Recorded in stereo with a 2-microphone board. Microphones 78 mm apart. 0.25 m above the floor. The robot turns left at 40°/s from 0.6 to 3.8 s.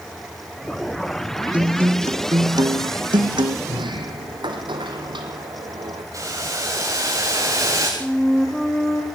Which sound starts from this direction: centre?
A flute, at 8.0 s.